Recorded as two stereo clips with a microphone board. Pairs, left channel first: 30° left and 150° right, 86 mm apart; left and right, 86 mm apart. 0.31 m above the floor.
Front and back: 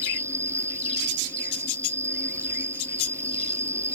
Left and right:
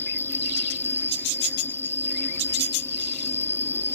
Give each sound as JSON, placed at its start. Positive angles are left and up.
{"t": 0.0, "sound": "an insect", "azimuth_deg": 155}